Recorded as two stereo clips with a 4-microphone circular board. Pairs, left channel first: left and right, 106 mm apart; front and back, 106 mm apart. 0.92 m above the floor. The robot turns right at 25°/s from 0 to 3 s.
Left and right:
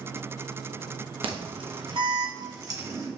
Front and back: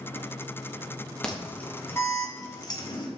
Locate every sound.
1.2 s an alarm: 80° right, 1.2 m; by 3.1 s 35° right, 1.2 m